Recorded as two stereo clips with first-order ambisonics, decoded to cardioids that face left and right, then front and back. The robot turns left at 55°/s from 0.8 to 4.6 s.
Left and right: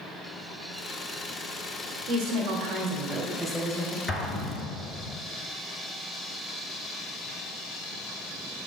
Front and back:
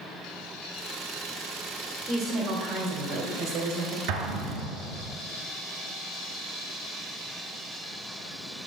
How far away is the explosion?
About 1.3 m.